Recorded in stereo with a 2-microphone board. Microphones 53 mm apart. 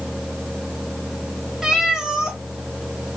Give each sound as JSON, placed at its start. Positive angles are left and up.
{"t": 1.6, "sound": "a cat meowing", "side_deg": -15, "distance_m": 1.3}